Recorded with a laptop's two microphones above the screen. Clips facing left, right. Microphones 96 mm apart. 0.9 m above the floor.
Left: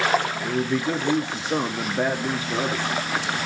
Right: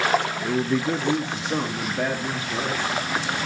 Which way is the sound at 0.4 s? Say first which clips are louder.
Right 1 dB; 10° right (ahead or behind).